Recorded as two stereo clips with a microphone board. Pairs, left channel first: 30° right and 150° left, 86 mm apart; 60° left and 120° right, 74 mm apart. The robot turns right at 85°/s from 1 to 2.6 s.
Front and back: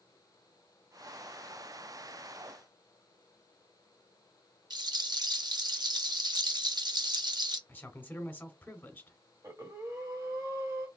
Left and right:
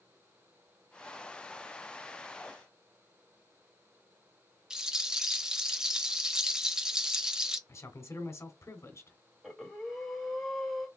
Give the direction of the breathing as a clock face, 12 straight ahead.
7 o'clock.